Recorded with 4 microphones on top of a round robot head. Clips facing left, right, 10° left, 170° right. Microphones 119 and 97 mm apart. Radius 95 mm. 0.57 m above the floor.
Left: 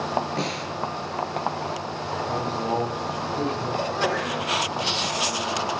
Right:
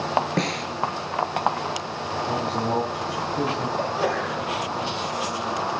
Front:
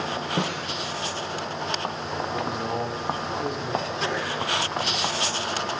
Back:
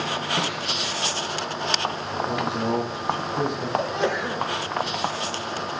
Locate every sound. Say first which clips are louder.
0.4 s a snare drum: right 3 dB, even; 60° right, 3.5 m
2.2 s a woman speaking: right 2 dB, back 5 dB; 140° right, 9 m
3.8 s a sneeze: even, back 4 dB; 165° right, 3 m